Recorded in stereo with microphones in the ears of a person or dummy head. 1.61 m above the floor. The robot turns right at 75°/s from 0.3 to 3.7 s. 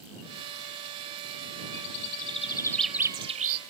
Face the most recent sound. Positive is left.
turn(degrees=-120)